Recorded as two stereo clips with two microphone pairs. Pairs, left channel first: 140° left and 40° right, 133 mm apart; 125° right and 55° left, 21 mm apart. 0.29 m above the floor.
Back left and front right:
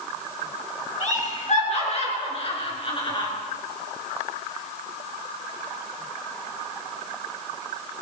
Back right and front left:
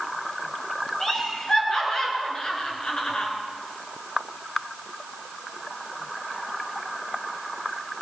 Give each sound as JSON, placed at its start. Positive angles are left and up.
{"t": 1.0, "sound": "laughter", "azimuth_deg": 165, "distance_m": 4.5}